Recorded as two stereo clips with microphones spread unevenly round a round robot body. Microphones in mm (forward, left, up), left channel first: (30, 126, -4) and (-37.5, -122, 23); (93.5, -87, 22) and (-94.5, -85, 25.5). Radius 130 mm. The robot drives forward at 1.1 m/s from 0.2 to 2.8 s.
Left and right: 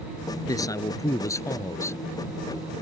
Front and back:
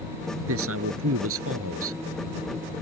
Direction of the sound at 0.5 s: 150° left.